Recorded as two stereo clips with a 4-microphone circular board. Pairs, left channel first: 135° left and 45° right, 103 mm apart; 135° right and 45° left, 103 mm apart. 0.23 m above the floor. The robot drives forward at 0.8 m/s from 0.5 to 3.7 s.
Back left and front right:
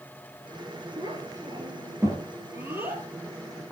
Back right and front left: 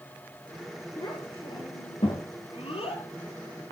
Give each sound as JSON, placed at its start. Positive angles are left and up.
{"t": 1.0, "sound": "a child speaking", "azimuth_deg": -90, "distance_m": 3.0}